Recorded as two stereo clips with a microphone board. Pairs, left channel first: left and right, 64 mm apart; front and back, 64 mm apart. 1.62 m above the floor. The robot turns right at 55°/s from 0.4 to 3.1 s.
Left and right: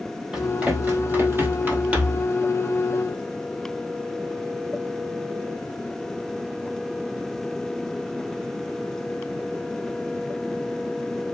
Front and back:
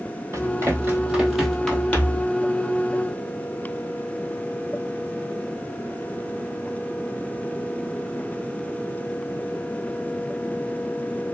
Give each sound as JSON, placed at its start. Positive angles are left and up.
{"t": 0.3, "sound": "running footsteps", "azimuth_deg": -165, "distance_m": 2.5}